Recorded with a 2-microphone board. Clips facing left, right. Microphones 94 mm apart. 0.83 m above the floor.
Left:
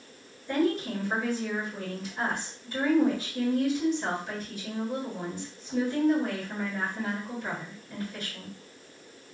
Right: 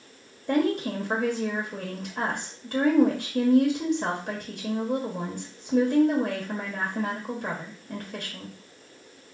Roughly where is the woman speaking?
Right.